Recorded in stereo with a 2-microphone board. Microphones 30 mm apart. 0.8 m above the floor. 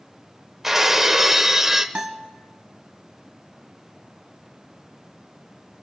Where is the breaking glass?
15° right (ahead or behind), 0.9 m.